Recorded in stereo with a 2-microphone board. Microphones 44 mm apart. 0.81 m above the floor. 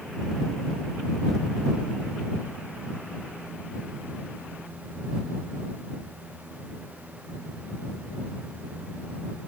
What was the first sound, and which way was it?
Only background noise.